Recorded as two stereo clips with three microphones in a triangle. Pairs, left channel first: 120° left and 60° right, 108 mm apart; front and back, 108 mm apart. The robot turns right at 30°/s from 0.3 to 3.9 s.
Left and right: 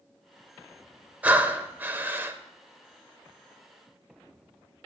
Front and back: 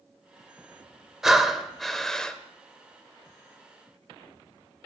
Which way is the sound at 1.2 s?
100° right.